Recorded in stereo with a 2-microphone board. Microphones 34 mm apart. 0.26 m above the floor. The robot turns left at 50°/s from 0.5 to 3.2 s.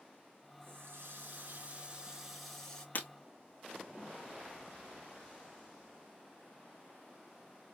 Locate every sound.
0.6 s a running tap: 85° right, 2.5 m; by 2.9 s 160° left, 2.5 m
3.0 s breaking glass: 50° left (ahead or behind), 1.5 m; by 3.1 s 55° left (ahead or behind), 1.5 m